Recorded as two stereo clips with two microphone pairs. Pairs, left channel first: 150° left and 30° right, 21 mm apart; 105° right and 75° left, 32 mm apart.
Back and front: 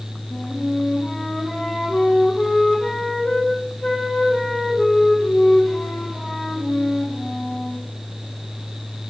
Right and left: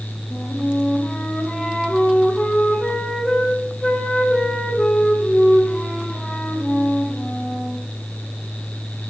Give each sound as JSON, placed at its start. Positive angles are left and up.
{"t": 0.3, "sound": "a flute", "azimuth_deg": -165, "distance_m": 1.1}